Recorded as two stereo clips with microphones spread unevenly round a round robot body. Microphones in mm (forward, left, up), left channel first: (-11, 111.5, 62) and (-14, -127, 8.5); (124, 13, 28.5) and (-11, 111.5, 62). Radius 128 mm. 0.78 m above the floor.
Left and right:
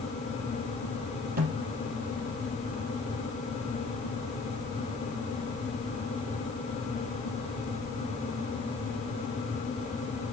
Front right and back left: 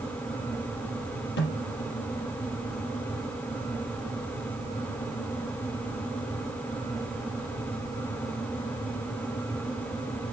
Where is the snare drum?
35° right, 5 m.